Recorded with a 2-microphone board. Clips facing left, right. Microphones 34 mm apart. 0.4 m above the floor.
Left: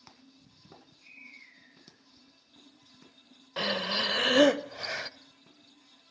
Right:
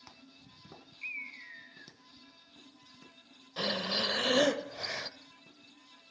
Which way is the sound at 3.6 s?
35° left (ahead or behind).